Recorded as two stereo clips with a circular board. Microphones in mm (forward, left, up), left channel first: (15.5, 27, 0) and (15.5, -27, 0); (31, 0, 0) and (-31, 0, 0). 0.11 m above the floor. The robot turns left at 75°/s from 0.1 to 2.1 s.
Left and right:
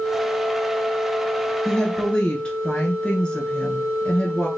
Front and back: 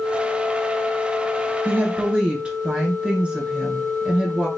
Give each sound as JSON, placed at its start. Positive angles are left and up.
{"t": 1.6, "sound": "a woman speaking", "azimuth_deg": 170, "distance_m": 1.5}